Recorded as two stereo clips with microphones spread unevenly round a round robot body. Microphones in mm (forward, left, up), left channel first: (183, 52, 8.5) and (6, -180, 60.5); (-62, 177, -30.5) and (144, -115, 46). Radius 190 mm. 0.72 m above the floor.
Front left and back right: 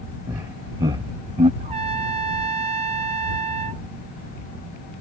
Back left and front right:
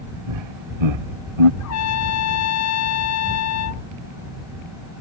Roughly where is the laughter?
Ahead right.